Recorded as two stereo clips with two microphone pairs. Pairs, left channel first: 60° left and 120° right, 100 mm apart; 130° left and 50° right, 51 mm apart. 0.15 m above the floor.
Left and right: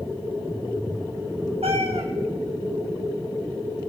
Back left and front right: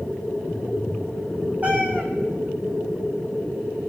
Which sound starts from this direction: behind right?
A cat meowing, at 1.6 s.